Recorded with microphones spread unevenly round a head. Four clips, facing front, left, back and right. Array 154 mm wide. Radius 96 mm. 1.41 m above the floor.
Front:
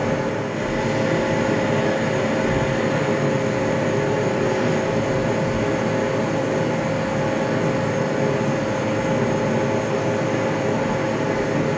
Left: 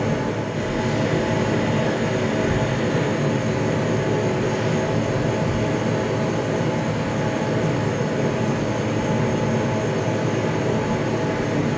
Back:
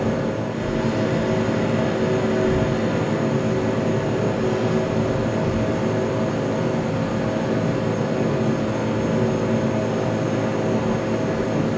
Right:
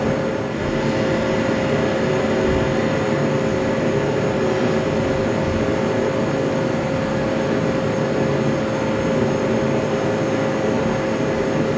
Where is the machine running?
60° right, 2.5 m.